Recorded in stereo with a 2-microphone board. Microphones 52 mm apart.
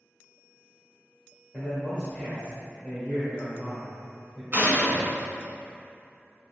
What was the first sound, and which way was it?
A man speaking, 25° left (ahead or behind).